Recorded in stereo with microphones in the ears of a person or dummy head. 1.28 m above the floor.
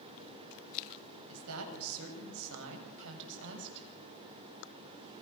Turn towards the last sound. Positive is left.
turn(degrees=-60)  # may be behind; listen again after turning